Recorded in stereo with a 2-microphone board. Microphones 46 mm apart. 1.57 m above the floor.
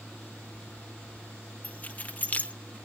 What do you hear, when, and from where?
1.6 s keys jangling: 35° left (ahead or behind), 1.7 m